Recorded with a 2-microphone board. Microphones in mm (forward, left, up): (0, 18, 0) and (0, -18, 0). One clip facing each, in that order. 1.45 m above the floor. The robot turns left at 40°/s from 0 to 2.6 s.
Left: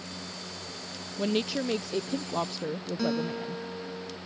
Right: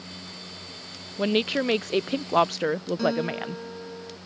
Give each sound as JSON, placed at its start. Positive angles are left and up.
{"t": 1.2, "sound": "a woman speaking", "azimuth_deg": -35}
{"t": 3.0, "sound": "a guitar", "side_deg": -5}